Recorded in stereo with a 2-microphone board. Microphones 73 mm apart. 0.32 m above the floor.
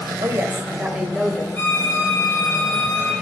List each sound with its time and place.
0.2 s a woman speaking: 45° right (ahead or behind), 1.8 m; by 1.4 s 10° left (ahead or behind), 1.7 m
1.6 s a violin: 25° left (ahead or behind), 6 m